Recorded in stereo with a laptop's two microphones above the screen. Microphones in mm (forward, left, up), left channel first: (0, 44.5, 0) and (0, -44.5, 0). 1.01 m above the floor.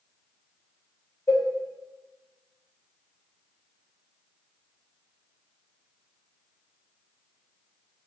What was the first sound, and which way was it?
A cowbell, 35° left (ahead or behind).